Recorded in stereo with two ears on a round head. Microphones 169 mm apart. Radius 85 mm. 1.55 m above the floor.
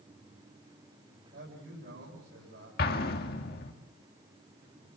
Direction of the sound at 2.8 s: 55° left (ahead or behind).